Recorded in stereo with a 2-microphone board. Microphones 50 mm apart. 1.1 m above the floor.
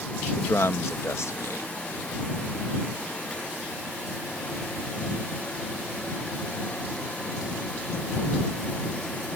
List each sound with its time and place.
0.4 s a man speaking: 70° left (ahead or behind)